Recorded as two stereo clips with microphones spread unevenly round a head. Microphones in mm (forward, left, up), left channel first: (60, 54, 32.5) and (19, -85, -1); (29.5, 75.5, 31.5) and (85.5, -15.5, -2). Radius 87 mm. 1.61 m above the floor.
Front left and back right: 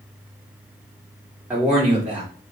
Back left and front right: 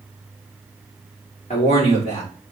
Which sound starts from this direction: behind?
A man speaking, at 1.5 s.